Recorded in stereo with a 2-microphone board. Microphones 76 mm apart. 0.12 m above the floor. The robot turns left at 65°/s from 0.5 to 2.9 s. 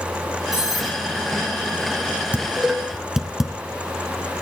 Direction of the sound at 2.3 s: 20° right (ahead or behind).